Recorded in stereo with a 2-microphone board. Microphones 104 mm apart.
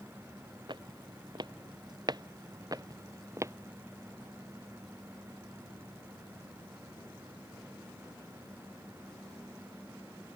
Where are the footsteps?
50° right (ahead or behind); by 3.5 s 30° right (ahead or behind).